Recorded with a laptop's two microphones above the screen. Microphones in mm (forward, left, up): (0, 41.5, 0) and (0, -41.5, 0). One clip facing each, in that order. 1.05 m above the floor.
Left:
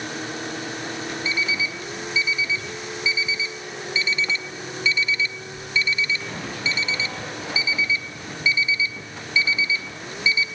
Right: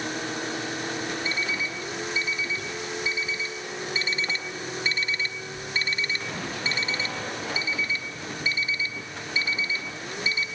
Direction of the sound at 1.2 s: 45° right (ahead or behind).